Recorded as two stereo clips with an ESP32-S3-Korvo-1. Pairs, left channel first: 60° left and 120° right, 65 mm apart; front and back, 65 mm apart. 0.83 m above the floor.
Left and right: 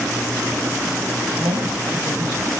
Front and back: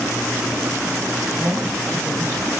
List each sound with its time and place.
1.4 s a woman speaking: 120° right, 5 m